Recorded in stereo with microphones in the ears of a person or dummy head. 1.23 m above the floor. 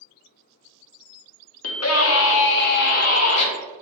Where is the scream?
80° left, 1.0 m; by 3.5 s 40° left (ahead or behind), 1.2 m.